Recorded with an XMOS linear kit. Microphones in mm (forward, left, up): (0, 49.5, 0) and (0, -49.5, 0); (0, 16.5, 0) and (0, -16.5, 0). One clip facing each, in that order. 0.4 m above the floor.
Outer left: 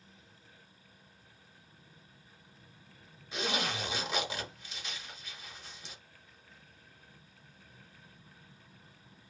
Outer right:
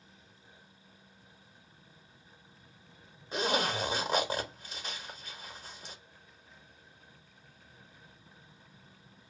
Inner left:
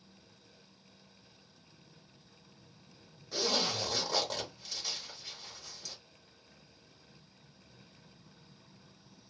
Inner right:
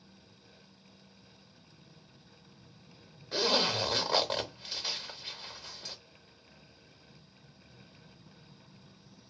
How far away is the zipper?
About 0.6 m.